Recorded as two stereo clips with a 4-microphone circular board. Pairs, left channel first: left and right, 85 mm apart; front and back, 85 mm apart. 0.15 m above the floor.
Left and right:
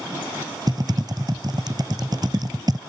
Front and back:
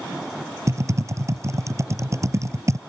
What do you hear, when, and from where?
0.7 s typing on a keyboard: 130° right